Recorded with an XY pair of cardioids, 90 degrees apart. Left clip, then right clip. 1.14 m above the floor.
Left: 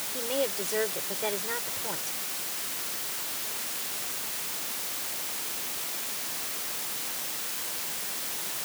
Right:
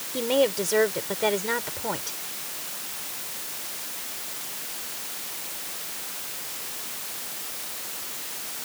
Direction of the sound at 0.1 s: 60° right.